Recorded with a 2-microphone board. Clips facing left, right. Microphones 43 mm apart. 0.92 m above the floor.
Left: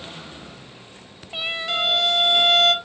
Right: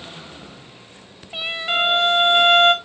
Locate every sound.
1.7 s a violin: 30° right (ahead or behind), 0.6 m